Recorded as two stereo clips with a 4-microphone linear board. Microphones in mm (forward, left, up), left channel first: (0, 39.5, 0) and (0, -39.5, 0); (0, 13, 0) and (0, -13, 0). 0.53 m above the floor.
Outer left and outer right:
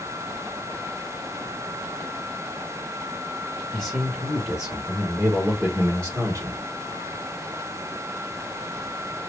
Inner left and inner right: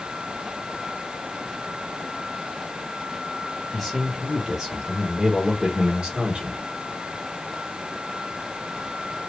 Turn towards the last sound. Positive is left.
turn(degrees=-45)  # may be behind; listen again after turning